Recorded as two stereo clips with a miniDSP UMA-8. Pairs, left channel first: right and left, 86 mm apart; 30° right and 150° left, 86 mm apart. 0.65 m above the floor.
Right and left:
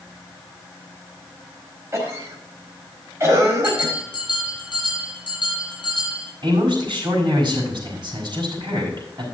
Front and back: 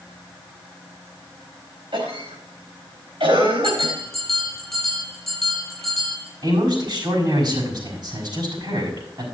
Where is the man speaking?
120° left, 5.5 m.